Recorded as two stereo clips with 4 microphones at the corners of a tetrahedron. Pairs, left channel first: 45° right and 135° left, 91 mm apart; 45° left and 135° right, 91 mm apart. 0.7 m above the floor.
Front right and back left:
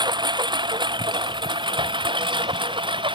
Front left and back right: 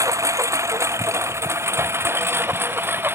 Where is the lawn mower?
170° left; by 3.2 s 160° left.